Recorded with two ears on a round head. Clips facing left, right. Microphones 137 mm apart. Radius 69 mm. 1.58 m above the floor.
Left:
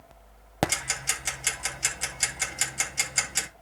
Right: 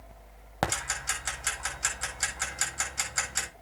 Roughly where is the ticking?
Left.